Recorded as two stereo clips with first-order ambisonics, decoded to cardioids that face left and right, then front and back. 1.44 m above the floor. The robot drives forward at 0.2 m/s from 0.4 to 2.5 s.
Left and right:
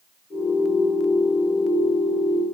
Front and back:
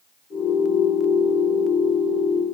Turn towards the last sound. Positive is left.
No sound to turn to.